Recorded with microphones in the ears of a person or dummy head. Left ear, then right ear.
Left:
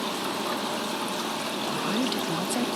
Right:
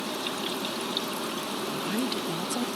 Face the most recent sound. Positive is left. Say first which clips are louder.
# left 4 dB
turn(degrees=0)  # may be behind; listen again after turning